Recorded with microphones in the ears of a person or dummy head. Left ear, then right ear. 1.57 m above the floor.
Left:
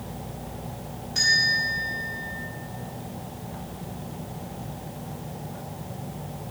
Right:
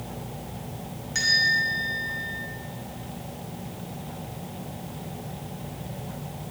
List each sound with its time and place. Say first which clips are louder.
1.1 s a bell: even; 55° right (ahead or behind), 4.5 m